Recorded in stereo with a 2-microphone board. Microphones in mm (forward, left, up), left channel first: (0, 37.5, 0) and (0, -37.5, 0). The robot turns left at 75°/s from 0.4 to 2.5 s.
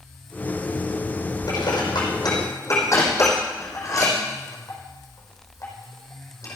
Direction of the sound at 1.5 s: 55° left (ahead or behind).